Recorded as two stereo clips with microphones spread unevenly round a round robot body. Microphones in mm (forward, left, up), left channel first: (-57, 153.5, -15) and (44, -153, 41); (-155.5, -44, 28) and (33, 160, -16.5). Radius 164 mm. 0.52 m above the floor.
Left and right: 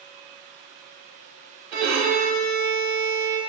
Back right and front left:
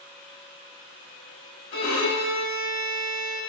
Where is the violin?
75° right, 1.2 m.